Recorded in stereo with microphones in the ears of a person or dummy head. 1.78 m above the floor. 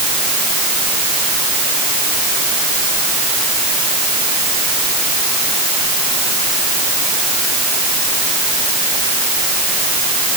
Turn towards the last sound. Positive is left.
No sound to turn to.